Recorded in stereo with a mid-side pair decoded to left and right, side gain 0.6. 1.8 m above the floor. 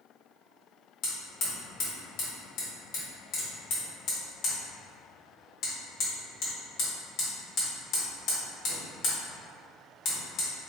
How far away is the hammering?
About 1.6 m.